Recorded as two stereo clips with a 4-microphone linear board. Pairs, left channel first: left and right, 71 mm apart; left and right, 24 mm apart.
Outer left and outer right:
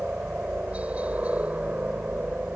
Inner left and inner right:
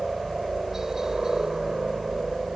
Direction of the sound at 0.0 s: 20° right (ahead or behind).